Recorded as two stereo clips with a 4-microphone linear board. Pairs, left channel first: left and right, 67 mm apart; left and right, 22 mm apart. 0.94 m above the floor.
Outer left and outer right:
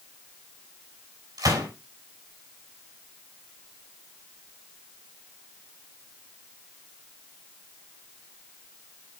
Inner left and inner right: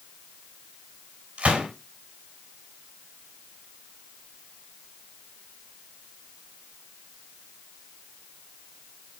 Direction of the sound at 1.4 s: 80° right.